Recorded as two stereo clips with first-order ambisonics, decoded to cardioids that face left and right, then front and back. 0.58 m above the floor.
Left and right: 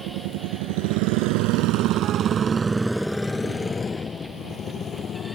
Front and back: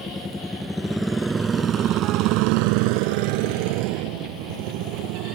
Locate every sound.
0.0 s a motorcycle: 75° right; by 5.4 s 150° left